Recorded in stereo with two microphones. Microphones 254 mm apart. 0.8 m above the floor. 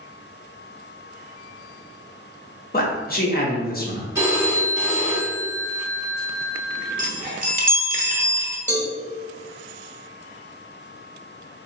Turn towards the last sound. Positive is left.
turn(degrees=10)  # may be behind; listen again after turning